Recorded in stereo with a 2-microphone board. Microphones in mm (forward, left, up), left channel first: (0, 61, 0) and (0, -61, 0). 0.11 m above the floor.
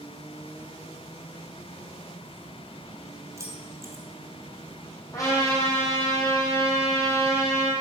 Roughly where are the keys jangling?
Right.